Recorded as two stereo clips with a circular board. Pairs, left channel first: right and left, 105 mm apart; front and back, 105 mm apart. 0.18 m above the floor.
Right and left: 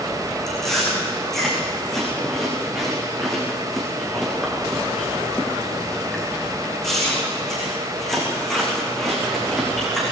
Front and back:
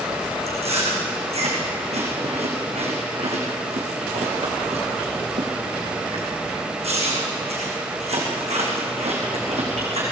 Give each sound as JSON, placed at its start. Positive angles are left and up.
{"t": 0.5, "sound": "chewing", "azimuth_deg": 180, "distance_m": 6.0}